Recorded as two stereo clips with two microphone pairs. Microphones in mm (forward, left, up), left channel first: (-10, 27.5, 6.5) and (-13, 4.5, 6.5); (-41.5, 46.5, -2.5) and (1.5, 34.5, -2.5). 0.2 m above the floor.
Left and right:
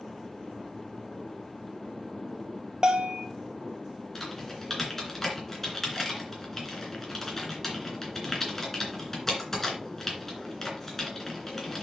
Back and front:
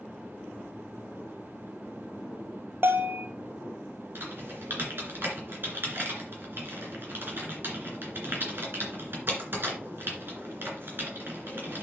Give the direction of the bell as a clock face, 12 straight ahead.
2 o'clock.